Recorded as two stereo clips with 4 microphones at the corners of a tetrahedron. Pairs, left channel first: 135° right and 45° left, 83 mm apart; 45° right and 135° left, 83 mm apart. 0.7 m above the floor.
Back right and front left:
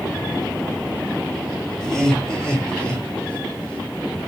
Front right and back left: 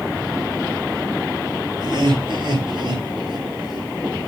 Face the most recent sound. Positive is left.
turn(degrees=145)